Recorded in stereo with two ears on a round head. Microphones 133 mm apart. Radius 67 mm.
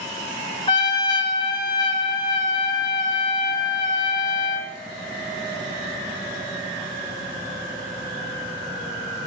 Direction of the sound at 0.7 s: 30° left (ahead or behind).